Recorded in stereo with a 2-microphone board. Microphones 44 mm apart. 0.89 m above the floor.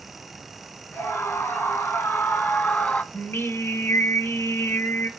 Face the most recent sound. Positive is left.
turn(degrees=65)  # may be behind; listen again after turning